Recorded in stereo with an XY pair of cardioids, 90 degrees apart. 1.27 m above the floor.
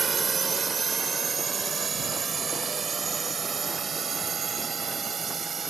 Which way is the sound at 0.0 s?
40° right.